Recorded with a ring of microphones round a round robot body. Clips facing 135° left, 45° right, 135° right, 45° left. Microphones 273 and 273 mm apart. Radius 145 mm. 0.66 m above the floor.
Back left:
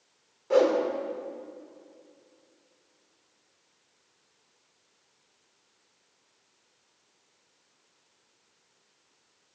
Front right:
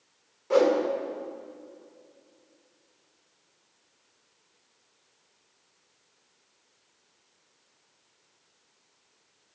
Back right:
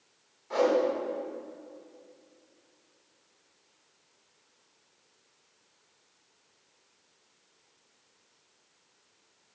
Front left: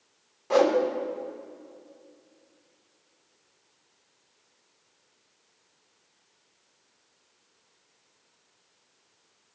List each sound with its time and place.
0.5 s a whoosh: 40° left, 1.6 m